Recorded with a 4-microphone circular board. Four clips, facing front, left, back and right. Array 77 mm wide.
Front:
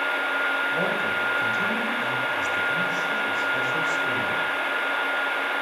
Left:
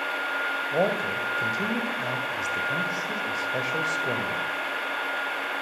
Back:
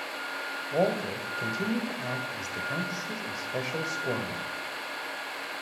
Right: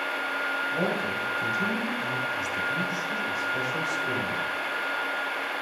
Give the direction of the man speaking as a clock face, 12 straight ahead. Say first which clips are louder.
Left 3 dB, front 3 dB; 8 o'clock.